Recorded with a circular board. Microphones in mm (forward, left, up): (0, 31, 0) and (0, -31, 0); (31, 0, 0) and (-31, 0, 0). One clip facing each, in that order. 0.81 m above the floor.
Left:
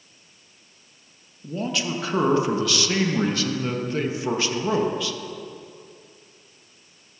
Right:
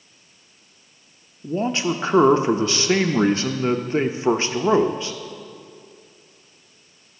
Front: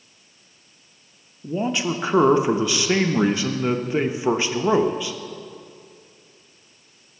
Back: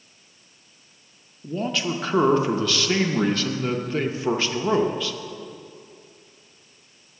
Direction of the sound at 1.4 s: 60° right.